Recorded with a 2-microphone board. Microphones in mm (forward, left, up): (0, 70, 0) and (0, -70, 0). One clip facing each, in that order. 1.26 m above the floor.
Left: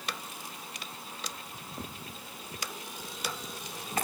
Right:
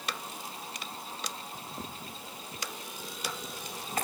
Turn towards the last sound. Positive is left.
No sound to turn to.